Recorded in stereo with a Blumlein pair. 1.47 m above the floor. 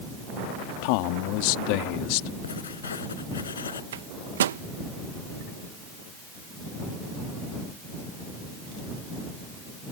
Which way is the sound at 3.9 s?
65° right.